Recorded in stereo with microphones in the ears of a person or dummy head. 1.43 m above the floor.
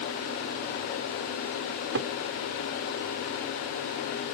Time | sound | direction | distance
1.7 | a cupboard door | 50° right (ahead or behind) | ?